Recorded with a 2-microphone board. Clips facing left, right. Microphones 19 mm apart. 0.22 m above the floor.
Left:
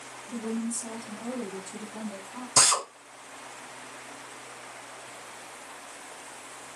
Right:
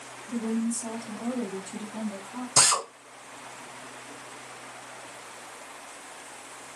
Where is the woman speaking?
20° right (ahead or behind), 1.1 m; by 2.5 s 30° right (ahead or behind), 2 m.